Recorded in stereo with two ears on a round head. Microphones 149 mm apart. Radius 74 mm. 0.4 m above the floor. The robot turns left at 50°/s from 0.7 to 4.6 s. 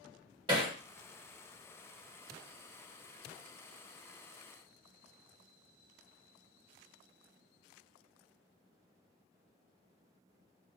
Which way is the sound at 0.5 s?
30° right (ahead or behind).